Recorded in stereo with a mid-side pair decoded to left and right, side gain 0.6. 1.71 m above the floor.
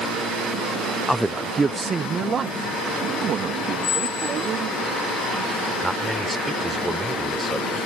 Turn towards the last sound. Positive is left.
turn(degrees=-5)